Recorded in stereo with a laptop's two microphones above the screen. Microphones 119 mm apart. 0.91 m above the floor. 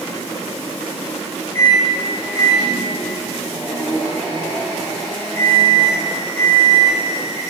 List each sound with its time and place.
1.5 s a microwave: 45° right (ahead or behind), 5.5 m